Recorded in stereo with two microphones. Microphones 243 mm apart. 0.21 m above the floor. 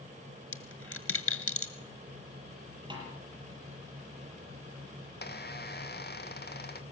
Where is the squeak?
45° left (ahead or behind), 1.8 m.